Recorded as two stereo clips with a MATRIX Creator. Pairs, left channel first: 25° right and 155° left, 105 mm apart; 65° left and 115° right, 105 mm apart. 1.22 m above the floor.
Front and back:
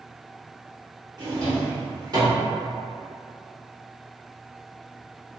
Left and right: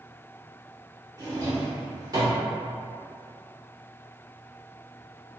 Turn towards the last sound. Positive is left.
turn(degrees=-160)